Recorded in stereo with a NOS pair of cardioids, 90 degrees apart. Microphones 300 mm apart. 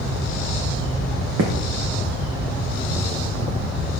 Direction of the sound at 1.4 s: 55° right.